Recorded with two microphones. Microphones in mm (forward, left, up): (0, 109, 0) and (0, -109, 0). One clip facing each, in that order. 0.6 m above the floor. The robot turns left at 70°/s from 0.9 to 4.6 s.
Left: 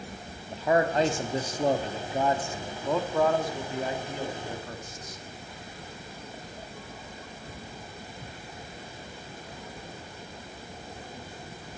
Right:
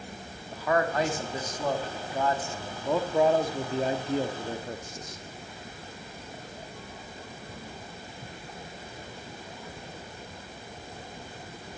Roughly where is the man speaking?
Behind left.